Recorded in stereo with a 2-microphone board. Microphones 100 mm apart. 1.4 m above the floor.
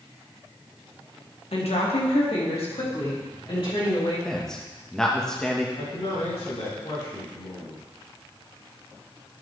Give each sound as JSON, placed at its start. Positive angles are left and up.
{"t": 1.5, "sound": "a woman speaking", "side_deg": 70, "distance_m": 1.4}
{"t": 4.2, "sound": "a man speaking", "side_deg": 5, "distance_m": 1.1}
{"t": 5.8, "sound": "a man speaking", "side_deg": 75, "distance_m": 2.5}